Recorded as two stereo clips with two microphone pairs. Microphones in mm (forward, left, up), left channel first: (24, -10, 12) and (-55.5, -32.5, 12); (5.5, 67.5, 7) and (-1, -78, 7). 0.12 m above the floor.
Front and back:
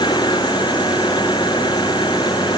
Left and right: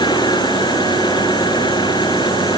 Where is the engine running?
30° left.